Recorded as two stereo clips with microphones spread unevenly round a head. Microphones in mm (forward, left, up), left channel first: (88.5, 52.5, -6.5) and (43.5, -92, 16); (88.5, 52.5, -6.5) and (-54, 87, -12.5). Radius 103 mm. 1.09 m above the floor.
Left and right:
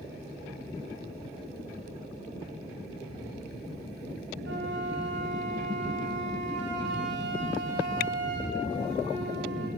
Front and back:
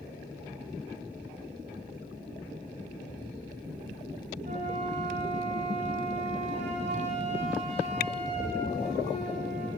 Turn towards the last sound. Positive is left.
turn(degrees=-135)